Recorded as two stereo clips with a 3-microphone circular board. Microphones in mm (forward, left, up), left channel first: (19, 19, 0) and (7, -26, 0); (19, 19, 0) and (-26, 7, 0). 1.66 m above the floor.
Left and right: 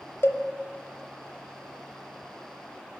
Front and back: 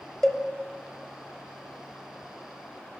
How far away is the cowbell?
About 0.6 m.